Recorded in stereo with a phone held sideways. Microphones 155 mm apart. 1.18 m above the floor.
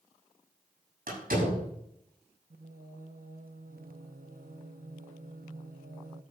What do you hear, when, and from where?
1.1 s a door slam: 90° right, 6.5 m
2.5 s singing: 75° right (ahead or behind), 0.7 m